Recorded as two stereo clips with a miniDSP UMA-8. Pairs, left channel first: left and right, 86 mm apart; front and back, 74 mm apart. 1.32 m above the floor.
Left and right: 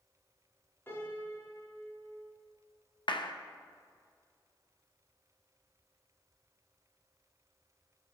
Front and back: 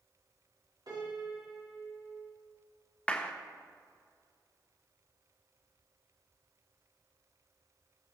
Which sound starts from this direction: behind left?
A piano, at 0.9 s.